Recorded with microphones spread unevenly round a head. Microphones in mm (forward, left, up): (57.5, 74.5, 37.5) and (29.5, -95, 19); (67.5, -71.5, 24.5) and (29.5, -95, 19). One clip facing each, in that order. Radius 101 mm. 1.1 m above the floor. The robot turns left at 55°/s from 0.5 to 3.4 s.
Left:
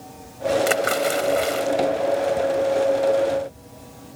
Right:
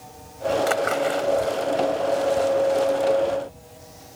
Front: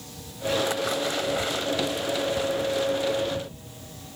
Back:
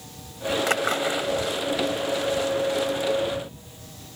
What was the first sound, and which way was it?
A splash, 155° left.